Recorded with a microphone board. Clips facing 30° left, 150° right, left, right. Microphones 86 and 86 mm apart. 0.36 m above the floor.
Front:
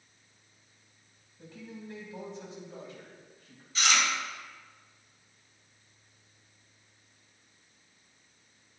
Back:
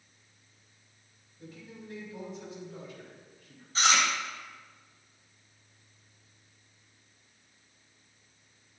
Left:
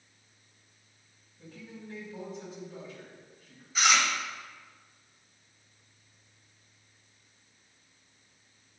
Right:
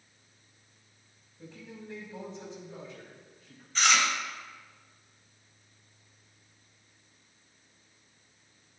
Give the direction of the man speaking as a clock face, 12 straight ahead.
1 o'clock.